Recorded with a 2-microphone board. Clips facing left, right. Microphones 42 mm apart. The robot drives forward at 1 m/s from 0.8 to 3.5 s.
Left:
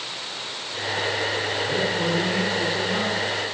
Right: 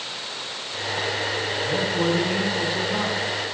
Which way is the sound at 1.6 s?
25° right (ahead or behind).